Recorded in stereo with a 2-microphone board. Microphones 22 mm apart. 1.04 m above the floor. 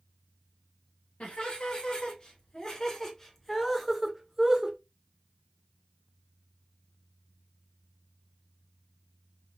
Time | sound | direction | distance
1.2 | laughter | 50° left (ahead or behind) | 2.0 m